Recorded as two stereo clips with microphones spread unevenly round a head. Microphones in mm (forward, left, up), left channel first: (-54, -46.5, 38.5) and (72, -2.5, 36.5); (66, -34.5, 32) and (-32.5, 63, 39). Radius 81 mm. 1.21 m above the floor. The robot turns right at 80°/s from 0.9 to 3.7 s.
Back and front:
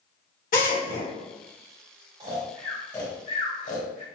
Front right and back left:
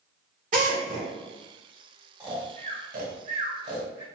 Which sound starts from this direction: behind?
A drill, at 0.5 s.